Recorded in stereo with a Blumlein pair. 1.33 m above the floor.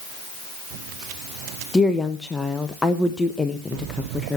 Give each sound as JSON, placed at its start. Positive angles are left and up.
{"t": 1.7, "sound": "a woman speaking", "azimuth_deg": 10, "distance_m": 1.0}